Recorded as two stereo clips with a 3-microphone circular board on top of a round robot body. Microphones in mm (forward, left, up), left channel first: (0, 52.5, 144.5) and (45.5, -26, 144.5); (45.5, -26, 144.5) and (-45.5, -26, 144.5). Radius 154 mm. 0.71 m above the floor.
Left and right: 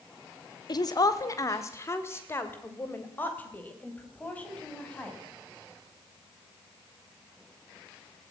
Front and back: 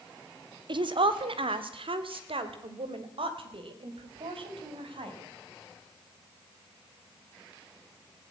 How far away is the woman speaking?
About 1.8 m.